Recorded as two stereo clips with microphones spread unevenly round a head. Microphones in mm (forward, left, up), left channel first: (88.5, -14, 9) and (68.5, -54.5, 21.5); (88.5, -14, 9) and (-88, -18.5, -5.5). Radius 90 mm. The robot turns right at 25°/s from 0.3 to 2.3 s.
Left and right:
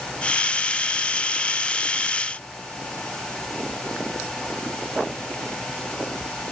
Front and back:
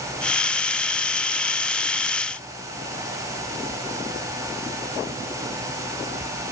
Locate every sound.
Only background noise.